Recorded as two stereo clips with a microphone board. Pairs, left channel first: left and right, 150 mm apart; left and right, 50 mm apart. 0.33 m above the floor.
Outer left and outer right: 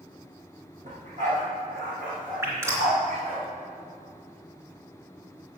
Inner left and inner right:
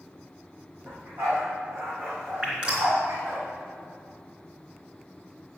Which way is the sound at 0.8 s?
55° right (ahead or behind).